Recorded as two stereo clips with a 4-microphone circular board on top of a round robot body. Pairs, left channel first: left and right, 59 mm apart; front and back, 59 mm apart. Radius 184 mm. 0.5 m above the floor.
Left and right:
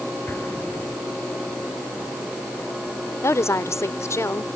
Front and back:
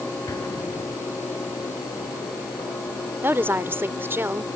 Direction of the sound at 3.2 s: 130° left.